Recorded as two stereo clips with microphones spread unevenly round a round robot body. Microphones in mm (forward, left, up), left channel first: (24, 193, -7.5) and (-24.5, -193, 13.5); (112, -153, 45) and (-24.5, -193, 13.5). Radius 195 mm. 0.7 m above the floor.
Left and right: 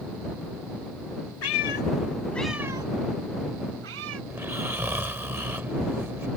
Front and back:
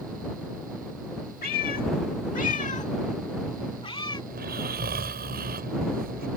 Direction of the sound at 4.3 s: Straight behind.